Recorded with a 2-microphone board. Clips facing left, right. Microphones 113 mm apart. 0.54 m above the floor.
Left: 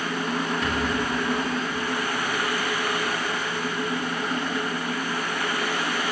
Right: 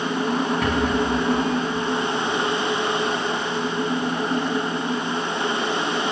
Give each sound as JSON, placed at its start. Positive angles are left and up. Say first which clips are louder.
{"t": 0.6, "sound": "a rattle", "louder": "right 5 dB", "side_deg": -60, "distance_m": 5.5}